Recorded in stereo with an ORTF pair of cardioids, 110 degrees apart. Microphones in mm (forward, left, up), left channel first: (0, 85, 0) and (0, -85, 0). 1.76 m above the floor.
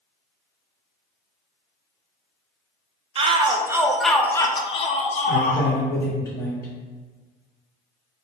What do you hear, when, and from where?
3.1 s a shout: 35° right, 0.9 m; by 5.7 s 55° left, 1.2 m
5.3 s a man speaking: 15° left, 1.5 m